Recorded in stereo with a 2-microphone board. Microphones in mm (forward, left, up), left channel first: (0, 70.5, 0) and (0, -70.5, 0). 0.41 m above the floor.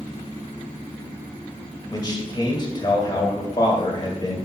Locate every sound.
1.9 s a man speaking: 30° left (ahead or behind), 1.8 m